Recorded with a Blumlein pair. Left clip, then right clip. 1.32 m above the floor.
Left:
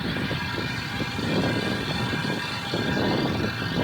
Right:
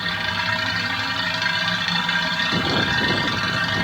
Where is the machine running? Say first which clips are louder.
Right 6 dB; 55° right, 1.6 m.